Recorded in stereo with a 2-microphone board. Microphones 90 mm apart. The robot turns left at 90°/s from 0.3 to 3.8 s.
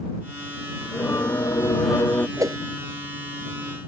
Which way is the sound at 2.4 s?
35° right (ahead or behind).